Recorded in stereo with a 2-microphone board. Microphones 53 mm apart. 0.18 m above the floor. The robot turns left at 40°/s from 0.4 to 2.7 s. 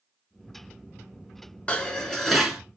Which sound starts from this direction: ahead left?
Dishes clattering, at 1.7 s.